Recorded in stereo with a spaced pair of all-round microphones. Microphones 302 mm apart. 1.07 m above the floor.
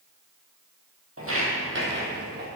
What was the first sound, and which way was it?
Footsteps, 50° right (ahead or behind).